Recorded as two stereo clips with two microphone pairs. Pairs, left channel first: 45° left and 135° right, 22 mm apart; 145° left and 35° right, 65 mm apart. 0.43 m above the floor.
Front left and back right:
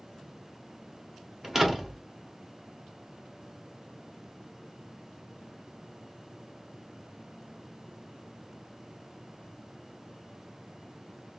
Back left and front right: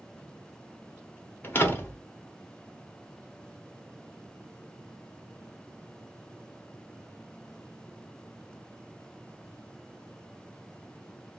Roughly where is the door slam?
Behind.